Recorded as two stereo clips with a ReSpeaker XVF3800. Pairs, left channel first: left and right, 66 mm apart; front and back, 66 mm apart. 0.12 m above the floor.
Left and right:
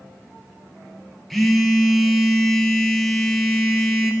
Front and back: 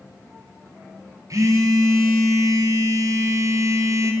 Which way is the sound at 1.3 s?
Straight behind.